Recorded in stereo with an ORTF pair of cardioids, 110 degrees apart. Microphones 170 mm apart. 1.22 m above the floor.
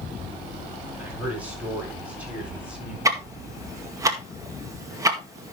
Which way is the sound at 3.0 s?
20° right.